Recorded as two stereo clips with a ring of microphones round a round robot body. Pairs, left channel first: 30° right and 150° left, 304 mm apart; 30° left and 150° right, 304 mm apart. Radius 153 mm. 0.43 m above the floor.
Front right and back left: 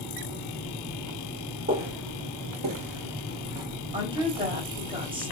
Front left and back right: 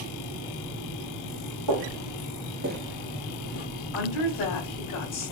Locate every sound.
1.7 s footsteps: 150° right, 1.3 m; by 3.7 s 70° left, 1.0 m
3.9 s a woman speaking: 75° left, 2.5 m